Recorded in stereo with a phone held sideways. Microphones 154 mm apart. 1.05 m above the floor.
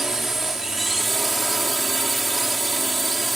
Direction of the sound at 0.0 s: Centre (ahead or behind).